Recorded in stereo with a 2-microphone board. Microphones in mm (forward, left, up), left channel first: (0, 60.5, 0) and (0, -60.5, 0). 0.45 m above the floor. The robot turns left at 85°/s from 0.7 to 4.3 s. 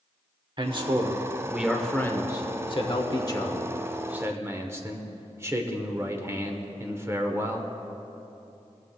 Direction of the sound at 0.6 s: 90° right.